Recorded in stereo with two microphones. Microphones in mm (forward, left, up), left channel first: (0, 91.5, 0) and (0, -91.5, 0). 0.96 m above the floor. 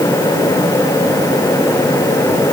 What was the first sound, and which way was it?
Only background noise.